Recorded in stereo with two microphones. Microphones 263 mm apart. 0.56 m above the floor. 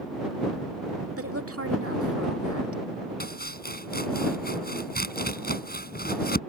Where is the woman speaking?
60° right (ahead or behind).